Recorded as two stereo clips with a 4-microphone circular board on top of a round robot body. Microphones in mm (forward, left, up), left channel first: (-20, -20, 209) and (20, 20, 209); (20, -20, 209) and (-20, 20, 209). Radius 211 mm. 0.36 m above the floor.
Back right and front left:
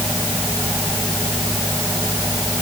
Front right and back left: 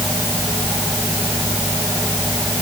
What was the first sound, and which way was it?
Only background noise.